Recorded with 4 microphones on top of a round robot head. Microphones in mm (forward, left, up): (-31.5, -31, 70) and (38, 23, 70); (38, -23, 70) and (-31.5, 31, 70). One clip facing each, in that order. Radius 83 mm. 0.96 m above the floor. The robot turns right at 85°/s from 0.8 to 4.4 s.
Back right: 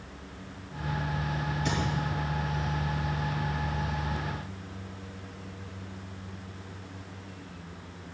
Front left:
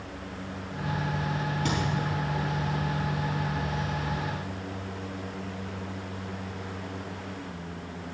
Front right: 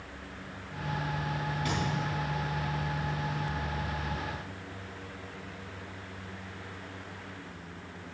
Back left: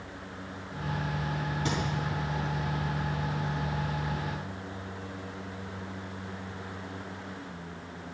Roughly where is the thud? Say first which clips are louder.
Front left 1 dB, back left 2 dB; left.